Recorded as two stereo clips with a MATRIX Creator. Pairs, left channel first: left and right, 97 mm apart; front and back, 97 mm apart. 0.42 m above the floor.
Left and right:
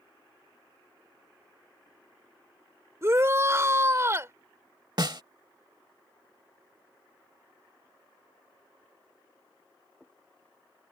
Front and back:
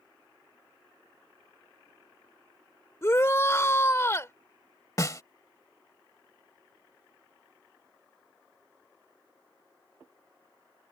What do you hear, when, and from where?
3.0 s a shout: 45° right
5.0 s a snare drum: 50° right